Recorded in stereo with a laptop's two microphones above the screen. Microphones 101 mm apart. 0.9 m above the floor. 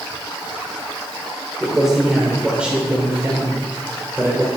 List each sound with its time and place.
1.6 s a man speaking: centre (ahead or behind), 3 m; by 4.5 s 30° right (ahead or behind), 3.5 m